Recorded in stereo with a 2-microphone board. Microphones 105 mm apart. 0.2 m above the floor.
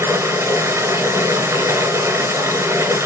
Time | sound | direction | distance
0.0 | running water | 25° right (ahead or behind) | 1.5 m